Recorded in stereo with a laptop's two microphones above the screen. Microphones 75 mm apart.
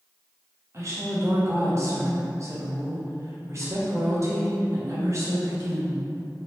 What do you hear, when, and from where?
0.7 s a woman speaking: 40° right (ahead or behind), 0.8 m